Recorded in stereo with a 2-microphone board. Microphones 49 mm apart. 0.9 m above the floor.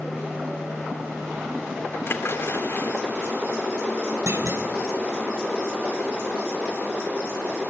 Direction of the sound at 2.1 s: 55° left (ahead or behind).